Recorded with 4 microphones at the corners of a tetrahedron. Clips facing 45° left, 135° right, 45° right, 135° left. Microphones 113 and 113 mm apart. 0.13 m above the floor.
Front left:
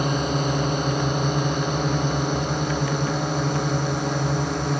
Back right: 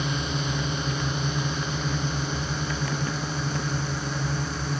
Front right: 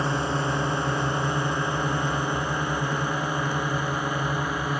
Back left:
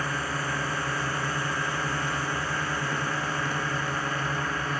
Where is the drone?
15° left; by 4.8 s 30° left.